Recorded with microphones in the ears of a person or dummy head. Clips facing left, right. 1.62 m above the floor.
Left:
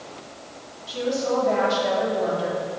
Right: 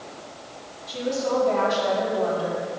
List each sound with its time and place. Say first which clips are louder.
0.9 s a woman speaking: left 1 dB; 15° left (ahead or behind), 5 m; by 2.8 s 30° left (ahead or behind), 4 m